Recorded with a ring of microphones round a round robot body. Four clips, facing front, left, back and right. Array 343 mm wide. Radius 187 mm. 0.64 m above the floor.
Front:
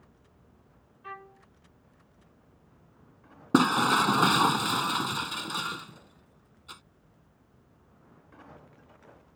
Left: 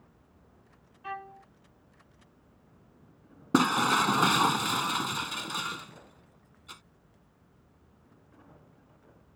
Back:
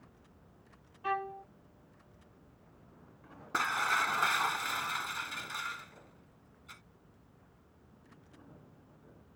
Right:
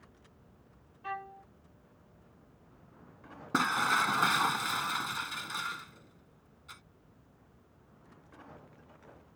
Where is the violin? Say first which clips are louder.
Even, back 10 dB; straight behind.